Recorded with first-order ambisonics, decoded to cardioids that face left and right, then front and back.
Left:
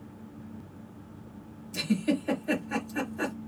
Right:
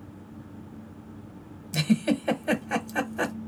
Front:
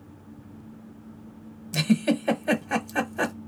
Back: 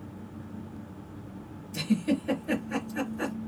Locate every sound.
1.7 s a giggle: 35° right, 0.7 m